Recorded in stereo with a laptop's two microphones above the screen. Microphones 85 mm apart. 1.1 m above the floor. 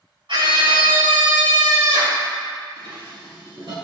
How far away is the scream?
About 4.5 m.